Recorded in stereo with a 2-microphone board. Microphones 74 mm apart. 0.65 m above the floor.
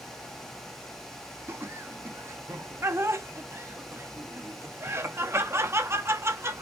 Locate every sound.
1.5 s laughter: 35° right (ahead or behind), 0.5 m